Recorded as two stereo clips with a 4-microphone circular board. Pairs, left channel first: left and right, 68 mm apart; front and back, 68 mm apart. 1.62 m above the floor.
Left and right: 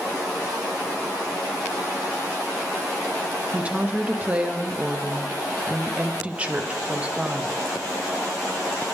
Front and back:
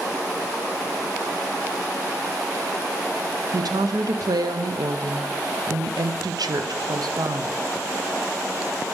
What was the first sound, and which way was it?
A woman speaking, 160° right.